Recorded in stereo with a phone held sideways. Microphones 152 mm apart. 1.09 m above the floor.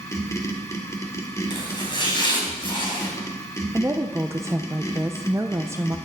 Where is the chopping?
35° left (ahead or behind), 3.5 m.